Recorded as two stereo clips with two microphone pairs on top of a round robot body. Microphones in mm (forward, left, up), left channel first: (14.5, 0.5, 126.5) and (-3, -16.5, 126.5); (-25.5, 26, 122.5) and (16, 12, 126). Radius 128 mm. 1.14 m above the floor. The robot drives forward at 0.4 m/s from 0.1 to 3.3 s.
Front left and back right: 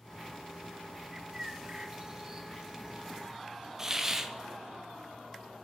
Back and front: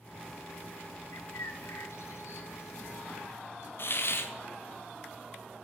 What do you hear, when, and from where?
1.1 s a bird: 160° left, 0.6 m; by 3.7 s 175° left, 1.4 m
3.8 s a hiss: 165° left, 0.9 m